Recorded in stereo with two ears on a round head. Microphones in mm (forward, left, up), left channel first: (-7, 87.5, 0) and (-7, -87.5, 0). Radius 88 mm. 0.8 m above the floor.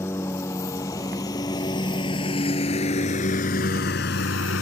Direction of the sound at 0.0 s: 15° left (ahead or behind).